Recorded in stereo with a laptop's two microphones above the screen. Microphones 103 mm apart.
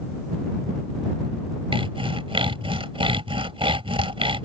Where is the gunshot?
I don't hear a gunshot.